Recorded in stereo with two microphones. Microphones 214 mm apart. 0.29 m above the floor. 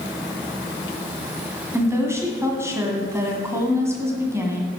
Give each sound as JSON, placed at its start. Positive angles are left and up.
{"t": 1.7, "sound": "a woman speaking", "side_deg": -10, "distance_m": 2.0}